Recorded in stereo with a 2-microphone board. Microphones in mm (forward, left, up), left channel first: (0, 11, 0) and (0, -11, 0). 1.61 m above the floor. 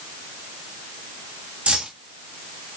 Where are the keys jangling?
55° right (ahead or behind), 2.5 m.